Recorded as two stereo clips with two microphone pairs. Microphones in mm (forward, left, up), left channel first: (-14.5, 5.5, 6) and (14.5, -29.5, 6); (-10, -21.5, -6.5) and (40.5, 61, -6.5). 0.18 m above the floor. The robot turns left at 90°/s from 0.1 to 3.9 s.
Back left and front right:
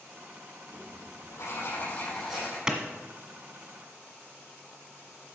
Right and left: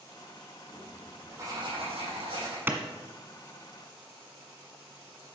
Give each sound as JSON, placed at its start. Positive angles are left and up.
{"t": 0.7, "sound": "writing", "azimuth_deg": -175, "distance_m": 6.5}
{"t": 2.7, "sound": "a clap", "azimuth_deg": 5, "distance_m": 1.5}